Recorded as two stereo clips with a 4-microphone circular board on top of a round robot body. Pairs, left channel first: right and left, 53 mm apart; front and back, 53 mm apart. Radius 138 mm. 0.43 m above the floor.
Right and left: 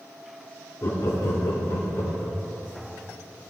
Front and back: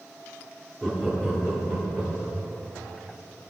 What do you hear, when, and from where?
0.8 s laughter: 90° right, 1.1 m; by 2.4 s 70° right, 1.7 m